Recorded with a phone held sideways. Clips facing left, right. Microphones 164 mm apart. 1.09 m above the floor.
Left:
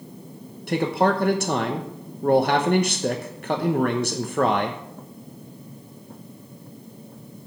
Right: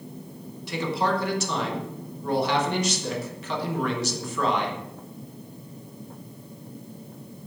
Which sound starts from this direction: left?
A man speaking, at 0.7 s.